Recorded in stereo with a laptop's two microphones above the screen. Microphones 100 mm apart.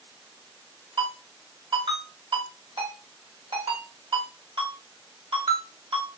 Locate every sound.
1.0 s a ringtone: 75° right (ahead or behind), 1.6 m